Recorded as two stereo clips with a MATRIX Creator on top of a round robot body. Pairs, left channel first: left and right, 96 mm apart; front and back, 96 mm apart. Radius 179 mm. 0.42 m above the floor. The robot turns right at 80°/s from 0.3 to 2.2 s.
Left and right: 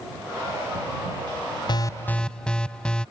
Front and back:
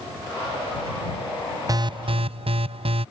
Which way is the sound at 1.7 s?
130° left.